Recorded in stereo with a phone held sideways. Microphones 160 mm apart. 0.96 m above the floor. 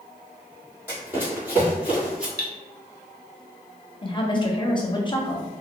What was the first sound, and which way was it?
Running footsteps, 10° right (ahead or behind).